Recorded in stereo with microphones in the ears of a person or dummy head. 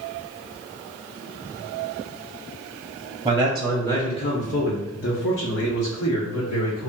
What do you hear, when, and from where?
3.2 s a man speaking: 15° right (ahead or behind), 0.7 m; by 6.9 s 75° left (ahead or behind), 1.9 m